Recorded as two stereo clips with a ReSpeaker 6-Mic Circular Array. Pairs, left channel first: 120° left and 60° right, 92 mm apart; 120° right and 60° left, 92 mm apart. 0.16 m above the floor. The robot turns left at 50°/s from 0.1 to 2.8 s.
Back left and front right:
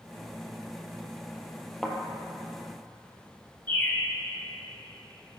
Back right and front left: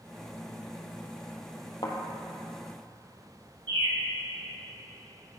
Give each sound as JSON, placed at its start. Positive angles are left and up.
{"t": 1.8, "sound": "a thud", "azimuth_deg": -155, "distance_m": 1.1}
{"t": 3.7, "sound": "a bird", "azimuth_deg": 55, "distance_m": 1.6}